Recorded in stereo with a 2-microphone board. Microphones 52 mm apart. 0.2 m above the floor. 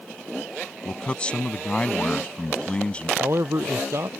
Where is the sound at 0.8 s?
25° left (ahead or behind).